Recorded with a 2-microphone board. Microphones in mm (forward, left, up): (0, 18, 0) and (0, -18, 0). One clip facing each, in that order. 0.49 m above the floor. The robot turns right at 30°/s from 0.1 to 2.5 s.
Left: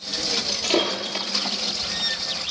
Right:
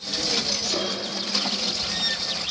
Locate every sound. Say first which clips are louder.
0.5 s breaking glass: left 4 dB; 35° left (ahead or behind), 7.5 m; by 1.3 s 60° left (ahead or behind), 7.5 m